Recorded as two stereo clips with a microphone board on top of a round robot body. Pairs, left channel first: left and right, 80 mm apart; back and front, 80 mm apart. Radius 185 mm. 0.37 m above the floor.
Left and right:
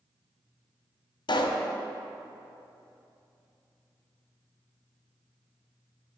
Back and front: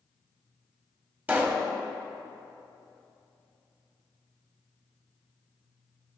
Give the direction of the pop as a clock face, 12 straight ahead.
10 o'clock.